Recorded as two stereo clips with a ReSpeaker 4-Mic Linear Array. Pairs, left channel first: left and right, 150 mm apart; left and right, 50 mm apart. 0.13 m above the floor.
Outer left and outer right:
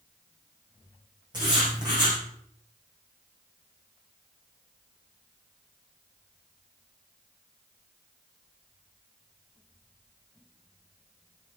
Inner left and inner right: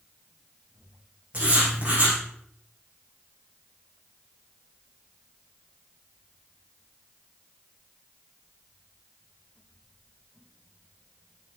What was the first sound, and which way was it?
Writing, 30° right (ahead or behind).